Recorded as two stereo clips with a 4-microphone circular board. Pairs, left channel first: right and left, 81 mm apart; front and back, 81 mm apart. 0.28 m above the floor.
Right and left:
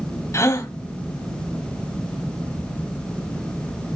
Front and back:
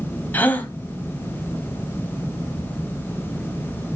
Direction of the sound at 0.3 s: 60° right.